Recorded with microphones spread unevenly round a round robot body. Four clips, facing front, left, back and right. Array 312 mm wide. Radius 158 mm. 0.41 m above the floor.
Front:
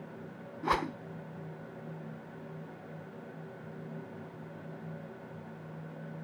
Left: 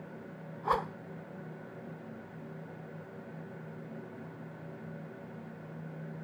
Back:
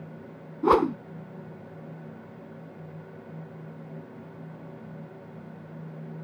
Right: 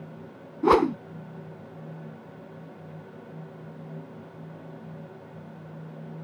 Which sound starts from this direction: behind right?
A whoosh, at 0.6 s.